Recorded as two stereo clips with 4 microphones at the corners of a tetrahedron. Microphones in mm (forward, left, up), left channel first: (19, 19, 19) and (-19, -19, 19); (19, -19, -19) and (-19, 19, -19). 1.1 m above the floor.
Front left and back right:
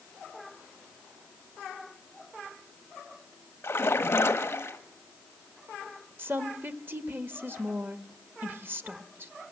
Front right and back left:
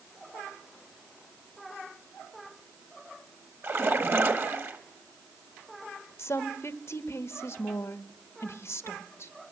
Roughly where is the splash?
Left.